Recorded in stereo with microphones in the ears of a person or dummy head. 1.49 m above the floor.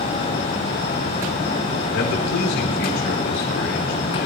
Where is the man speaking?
70° left (ahead or behind), 4.5 m.